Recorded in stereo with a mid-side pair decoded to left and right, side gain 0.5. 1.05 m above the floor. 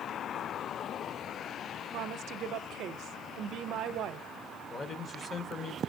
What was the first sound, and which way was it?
A woman speaking, 70° right.